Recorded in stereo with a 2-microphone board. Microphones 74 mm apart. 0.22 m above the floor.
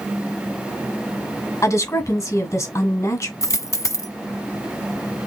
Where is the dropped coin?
50° left (ahead or behind), 0.6 m.